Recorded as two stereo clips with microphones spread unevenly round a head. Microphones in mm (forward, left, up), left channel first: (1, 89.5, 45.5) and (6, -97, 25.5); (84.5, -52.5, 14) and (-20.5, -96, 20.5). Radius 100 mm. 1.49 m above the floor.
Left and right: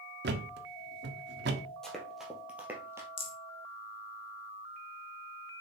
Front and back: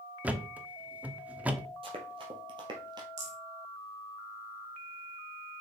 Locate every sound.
0.2 s a thud: 90° right, 1.2 m
1.8 s running footsteps: 175° left, 2 m; by 3.1 s 165° right, 1.8 m
3.2 s a rattle: 155° left, 1.8 m